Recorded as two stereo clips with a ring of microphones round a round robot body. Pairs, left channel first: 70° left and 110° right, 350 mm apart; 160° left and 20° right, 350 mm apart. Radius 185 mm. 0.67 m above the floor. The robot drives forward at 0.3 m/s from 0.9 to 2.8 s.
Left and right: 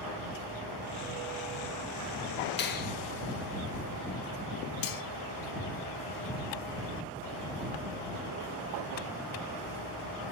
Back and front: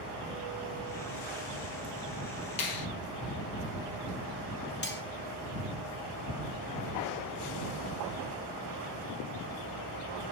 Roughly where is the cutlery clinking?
Left.